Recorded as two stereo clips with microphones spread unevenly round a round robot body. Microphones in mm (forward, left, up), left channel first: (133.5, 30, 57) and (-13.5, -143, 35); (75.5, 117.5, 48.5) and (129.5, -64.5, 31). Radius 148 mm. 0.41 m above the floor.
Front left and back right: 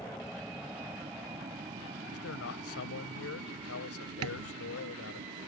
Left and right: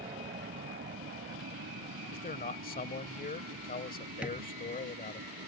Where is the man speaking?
65° left.